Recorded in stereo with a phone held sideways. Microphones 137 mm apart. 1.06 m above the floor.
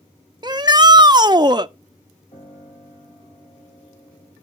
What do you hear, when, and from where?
0.4 s a shout: 30° right (ahead or behind), 0.6 m
2.3 s a piano: 50° left (ahead or behind), 6 m